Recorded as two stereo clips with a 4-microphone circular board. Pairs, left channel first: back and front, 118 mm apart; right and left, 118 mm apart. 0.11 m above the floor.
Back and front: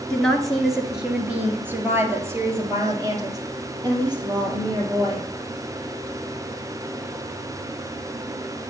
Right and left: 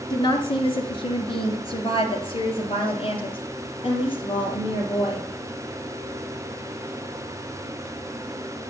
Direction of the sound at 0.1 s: 100° right.